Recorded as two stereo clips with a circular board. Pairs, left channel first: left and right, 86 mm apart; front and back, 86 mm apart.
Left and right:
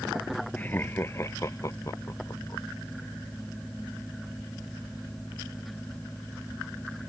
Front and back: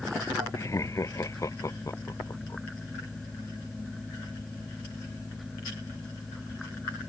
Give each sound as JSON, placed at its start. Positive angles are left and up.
{"t": 0.6, "sound": "laughter", "azimuth_deg": 30}